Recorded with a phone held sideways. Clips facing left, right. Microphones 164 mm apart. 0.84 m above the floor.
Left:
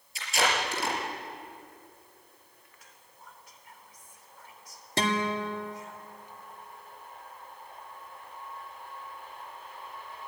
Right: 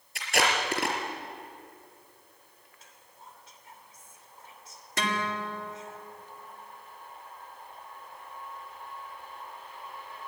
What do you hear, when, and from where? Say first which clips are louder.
0.1 s tape being pulled: right 1 dB; 65° right (ahead or behind), 4.5 m
2.8 s whispering: right 2 dB; 25° right (ahead or behind), 3 m
5.0 s a guitar: left 3 dB; 30° left (ahead or behind), 2 m